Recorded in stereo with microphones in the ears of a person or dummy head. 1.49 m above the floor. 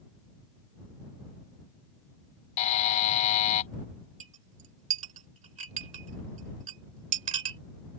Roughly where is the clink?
Right.